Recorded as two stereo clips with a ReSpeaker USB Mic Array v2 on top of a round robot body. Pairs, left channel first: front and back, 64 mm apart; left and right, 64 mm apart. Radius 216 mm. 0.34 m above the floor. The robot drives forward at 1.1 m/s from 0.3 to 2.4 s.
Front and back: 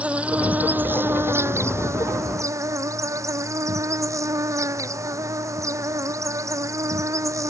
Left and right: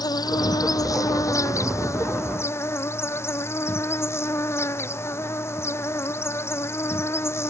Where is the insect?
110° left; by 7.5 s 140° left.